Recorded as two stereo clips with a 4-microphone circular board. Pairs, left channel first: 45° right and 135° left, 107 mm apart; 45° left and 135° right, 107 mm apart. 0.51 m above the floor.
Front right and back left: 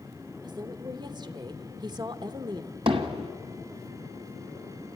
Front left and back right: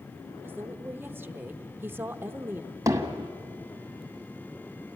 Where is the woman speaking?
160° left, 1.0 m.